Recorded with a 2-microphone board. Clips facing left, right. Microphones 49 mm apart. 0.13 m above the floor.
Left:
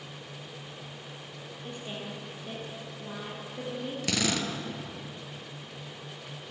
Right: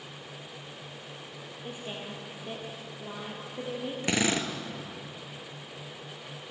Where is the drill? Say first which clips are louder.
Right 2 dB; 25° right (ahead or behind), 1.8 m.